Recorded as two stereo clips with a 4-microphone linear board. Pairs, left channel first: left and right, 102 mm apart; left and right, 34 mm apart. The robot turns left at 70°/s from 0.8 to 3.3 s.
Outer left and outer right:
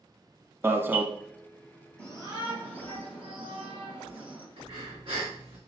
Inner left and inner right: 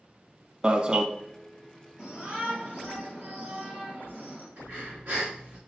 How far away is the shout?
About 3 m.